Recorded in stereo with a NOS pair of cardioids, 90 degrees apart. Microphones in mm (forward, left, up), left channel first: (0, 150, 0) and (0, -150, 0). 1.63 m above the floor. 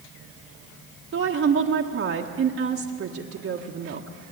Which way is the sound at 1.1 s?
45° right.